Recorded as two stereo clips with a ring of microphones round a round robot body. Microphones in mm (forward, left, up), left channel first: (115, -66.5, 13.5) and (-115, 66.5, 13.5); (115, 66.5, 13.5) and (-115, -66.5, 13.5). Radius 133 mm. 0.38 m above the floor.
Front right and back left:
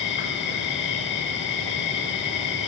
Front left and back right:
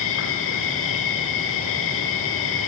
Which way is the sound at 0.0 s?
5° left.